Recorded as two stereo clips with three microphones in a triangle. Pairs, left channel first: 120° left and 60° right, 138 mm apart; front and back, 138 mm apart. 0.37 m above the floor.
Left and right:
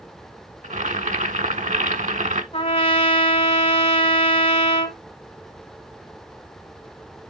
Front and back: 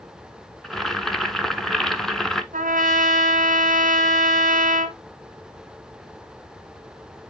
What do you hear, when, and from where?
0.6 s boiling: 85° right, 0.9 m
2.5 s a trumpet: 165° left, 1.2 m